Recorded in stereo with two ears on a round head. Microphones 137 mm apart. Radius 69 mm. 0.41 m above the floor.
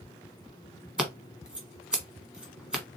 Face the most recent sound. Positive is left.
turn(degrees=-5)  # may be behind; listen again after turning